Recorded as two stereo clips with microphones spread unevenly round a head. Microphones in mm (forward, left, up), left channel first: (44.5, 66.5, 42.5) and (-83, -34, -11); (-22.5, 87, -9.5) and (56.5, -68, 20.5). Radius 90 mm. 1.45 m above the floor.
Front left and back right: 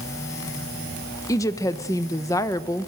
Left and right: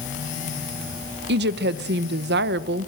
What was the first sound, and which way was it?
A woman speaking, 35° right.